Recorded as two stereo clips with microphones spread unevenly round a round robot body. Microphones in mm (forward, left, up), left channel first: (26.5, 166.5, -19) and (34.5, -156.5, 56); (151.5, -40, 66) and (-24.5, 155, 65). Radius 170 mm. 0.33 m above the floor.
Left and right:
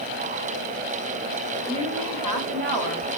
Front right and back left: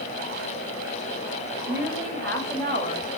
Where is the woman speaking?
150° right, 2 m; by 3.1 s 110° right, 2 m.